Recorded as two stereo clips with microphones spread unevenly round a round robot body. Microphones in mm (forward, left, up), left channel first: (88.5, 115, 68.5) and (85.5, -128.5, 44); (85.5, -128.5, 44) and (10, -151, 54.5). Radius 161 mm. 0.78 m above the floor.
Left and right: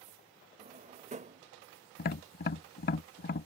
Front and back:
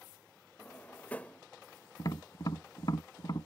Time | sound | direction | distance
0.6 | a drawer | 50° right | ?
2.0 | tapping | 65° left | ?